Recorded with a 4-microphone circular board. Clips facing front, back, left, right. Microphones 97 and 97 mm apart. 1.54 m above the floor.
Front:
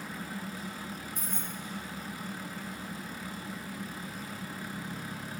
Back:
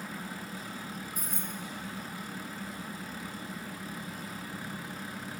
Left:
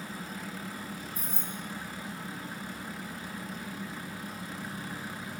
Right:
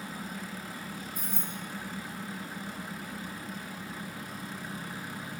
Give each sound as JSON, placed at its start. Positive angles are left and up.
{"t": 1.1, "sound": "keys jangling", "azimuth_deg": -100, "distance_m": 2.0}